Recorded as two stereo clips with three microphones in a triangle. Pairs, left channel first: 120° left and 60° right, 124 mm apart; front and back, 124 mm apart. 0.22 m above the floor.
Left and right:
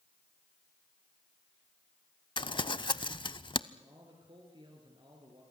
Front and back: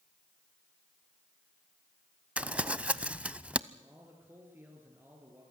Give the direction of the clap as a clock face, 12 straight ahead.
I don't hear a clap.